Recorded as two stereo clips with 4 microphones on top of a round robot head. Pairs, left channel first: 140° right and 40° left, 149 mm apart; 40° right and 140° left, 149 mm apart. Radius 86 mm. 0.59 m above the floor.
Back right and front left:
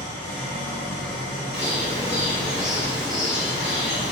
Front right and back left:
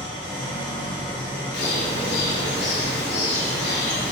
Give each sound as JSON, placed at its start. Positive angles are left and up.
{"t": 0.0, "sound": "an engine running", "azimuth_deg": 60, "distance_m": 1.9}
{"t": 1.5, "sound": "a bird", "azimuth_deg": -45, "distance_m": 1.0}